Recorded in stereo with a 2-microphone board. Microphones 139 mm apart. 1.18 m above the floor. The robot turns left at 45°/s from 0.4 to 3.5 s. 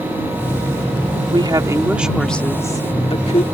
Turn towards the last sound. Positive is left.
turn(degrees=120)